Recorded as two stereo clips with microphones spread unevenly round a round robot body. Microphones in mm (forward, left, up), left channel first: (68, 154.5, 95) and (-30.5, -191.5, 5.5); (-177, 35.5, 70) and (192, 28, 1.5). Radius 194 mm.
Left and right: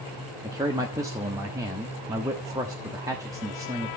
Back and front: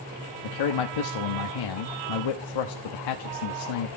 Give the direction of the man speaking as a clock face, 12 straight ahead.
6 o'clock.